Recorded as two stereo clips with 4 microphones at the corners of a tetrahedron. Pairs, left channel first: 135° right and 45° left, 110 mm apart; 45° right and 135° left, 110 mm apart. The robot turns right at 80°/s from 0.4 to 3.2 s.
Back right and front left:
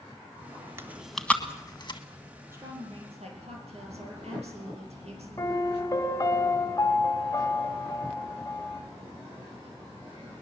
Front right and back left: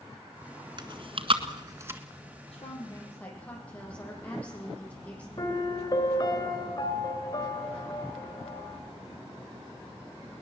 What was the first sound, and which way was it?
Chewing, 105° left.